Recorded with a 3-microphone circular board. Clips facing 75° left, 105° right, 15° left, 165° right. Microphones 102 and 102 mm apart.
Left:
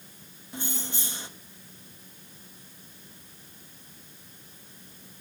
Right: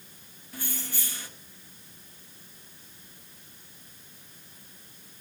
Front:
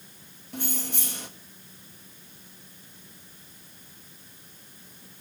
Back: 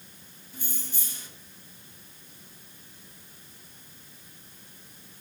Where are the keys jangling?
10° left, 1.6 m.